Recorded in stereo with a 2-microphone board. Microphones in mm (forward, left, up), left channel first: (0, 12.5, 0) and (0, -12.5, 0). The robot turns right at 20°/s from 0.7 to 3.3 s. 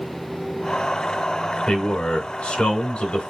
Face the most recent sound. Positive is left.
turn(degrees=110)